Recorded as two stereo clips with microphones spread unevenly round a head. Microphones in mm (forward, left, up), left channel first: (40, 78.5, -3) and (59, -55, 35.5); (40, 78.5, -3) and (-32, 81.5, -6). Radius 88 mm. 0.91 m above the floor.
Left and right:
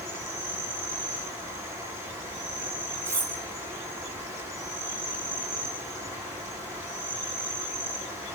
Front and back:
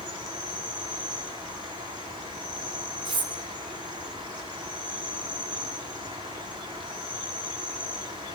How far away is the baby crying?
No baby crying in this recording.